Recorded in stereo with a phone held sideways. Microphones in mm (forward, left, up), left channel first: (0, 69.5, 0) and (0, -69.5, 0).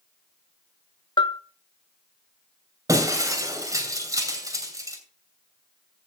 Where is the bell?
35° left (ahead or behind), 0.5 m.